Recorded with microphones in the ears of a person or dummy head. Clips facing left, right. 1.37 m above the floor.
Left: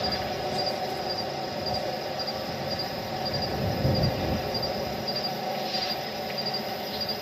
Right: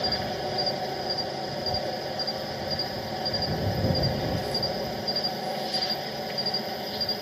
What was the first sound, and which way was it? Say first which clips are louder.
An insect: even; 10° right (ahead or behind).